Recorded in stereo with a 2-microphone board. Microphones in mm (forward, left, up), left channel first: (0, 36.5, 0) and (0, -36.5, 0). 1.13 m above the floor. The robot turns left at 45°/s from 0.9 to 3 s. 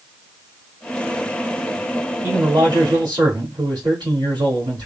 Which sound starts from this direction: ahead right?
A man speaking, at 2.2 s.